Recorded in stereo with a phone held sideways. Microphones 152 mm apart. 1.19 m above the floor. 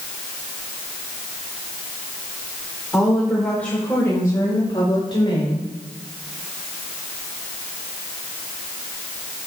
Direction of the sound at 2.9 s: 5° right (ahead or behind).